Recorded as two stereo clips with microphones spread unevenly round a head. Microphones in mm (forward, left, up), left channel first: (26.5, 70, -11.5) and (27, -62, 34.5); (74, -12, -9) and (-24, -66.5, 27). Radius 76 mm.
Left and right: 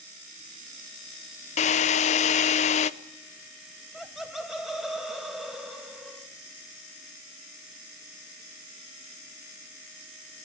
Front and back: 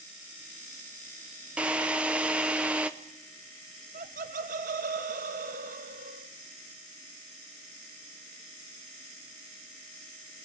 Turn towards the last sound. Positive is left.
turn(degrees=-175)